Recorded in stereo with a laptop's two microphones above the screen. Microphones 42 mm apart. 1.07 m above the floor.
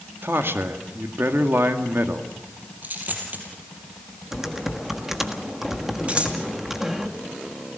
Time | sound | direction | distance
0.2 | a man speaking | 70° right (ahead or behind) | 2 m
2.8 | a dropped coin | 50° right (ahead or behind) | 3.5 m
4.3 | typing on a keyboard | 10° right (ahead or behind) | 1.4 m
6.1 | scissors | 30° right (ahead or behind) | 1.9 m